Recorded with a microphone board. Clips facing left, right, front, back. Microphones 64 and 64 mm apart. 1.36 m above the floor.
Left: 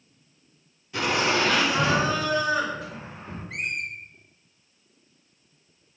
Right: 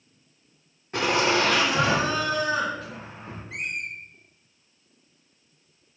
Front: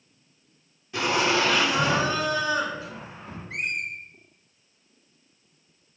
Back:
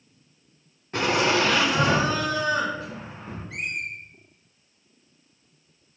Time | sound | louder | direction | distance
0.9 | laughter | right 1 dB, back 1 dB | 135° right | 0.8 m
3.5 | a squeak | left 1 dB, front 2 dB | 55° left | 0.9 m